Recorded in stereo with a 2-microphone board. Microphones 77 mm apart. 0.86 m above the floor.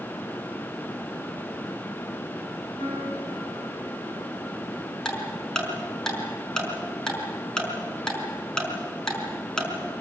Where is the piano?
60° right (ahead or behind), 9.5 m.